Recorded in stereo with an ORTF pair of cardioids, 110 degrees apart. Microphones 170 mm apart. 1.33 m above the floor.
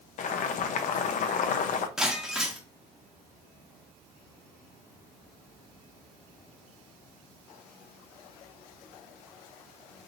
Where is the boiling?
50° left, 0.7 m.